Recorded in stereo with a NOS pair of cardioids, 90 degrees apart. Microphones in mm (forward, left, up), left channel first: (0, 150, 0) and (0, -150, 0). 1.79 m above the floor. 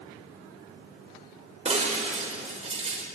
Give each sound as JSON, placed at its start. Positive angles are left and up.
{"t": 1.6, "sound": "breaking glass", "azimuth_deg": -25, "distance_m": 5.0}